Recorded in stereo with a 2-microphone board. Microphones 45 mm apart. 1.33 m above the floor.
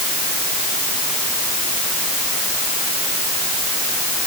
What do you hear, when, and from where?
Only background noise.